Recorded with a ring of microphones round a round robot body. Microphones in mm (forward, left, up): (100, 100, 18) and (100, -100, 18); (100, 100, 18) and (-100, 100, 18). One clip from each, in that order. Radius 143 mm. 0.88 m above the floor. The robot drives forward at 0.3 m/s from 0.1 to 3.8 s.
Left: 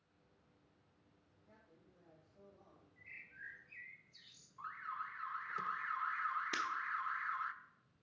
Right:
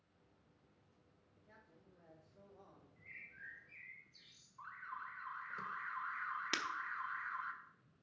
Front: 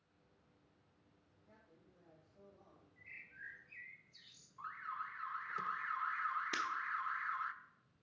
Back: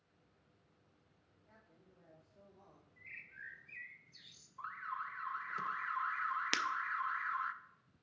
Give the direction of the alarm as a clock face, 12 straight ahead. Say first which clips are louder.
Left 4 dB, back 2 dB; 9 o'clock.